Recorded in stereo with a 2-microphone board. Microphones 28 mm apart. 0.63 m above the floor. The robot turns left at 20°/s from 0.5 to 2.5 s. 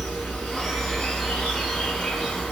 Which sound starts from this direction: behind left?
An insect, at 0.0 s.